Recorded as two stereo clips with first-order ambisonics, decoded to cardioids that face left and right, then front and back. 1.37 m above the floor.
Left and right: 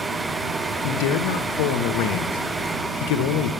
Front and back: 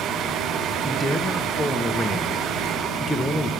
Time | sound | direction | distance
0.8 | a man speaking | 85° left | 0.7 m